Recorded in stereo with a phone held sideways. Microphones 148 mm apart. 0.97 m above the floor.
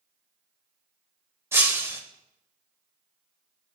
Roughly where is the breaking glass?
Centre.